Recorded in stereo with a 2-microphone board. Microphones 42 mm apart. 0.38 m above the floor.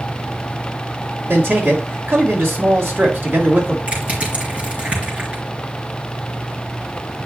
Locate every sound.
1.3 s a man speaking: 65° right (ahead or behind), 3 m
3.9 s crushing: 35° right (ahead or behind), 4 m